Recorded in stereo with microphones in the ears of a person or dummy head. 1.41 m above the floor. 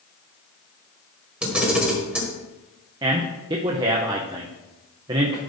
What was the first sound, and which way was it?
A camera shutter, 5° right (ahead or behind).